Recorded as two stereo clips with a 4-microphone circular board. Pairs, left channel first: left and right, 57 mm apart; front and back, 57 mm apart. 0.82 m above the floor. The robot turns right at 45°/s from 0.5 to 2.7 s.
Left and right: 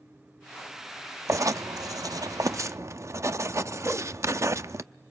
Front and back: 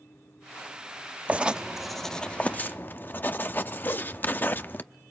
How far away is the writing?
About 0.6 m.